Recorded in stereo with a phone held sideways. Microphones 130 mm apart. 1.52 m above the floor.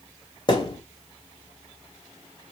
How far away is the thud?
About 1.2 m.